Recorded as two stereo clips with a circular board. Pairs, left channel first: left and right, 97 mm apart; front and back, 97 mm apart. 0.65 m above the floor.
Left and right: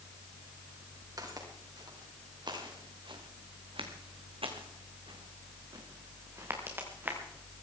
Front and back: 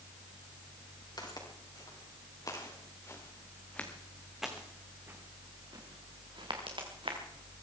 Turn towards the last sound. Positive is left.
turn(degrees=-160)